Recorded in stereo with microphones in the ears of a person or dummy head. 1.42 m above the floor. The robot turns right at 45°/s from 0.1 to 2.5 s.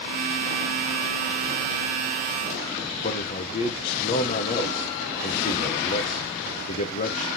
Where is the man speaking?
45° left (ahead or behind), 1.0 m.